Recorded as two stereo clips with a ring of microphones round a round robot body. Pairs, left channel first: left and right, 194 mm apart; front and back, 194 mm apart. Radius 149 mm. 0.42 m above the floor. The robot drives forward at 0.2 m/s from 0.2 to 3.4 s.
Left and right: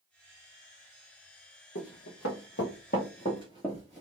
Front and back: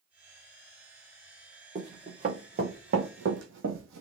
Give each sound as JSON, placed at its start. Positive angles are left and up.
{"t": 1.8, "sound": "running footsteps", "azimuth_deg": 125, "distance_m": 1.8}